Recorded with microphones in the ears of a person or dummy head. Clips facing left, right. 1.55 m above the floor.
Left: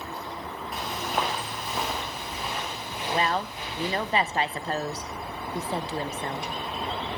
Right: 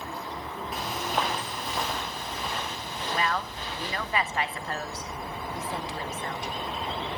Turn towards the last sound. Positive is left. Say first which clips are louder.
# left 3 dB
turn(degrees=25)  # may be behind; listen again after turning